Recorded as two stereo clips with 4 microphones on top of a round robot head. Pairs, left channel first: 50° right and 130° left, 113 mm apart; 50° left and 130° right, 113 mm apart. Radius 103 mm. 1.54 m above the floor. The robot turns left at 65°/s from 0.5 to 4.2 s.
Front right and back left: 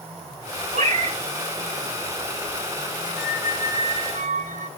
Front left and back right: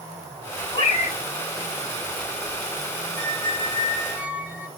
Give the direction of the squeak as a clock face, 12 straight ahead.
5 o'clock.